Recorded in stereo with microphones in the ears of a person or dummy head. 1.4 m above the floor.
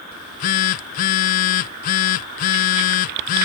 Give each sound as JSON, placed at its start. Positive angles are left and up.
{"t": 0.1, "sound": "a phone buzzing", "side_deg": 50}